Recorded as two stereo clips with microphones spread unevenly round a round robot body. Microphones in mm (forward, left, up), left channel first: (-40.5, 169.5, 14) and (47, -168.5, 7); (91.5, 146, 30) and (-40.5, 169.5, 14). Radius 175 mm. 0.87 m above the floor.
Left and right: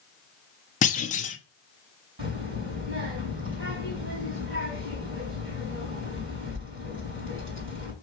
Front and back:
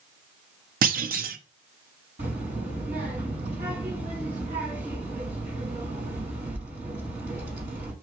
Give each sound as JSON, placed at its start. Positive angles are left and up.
{"t": 0.8, "sound": "a clunk", "azimuth_deg": 175, "distance_m": 0.7}
{"t": 2.2, "sound": "a child speaking", "azimuth_deg": -130, "distance_m": 4.0}